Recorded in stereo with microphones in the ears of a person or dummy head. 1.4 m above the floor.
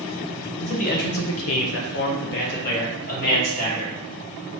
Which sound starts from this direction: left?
A man speaking, at 0.6 s.